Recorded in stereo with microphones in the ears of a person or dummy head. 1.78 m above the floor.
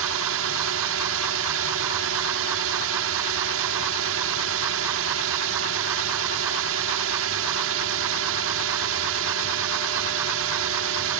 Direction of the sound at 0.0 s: 75° right (ahead or behind).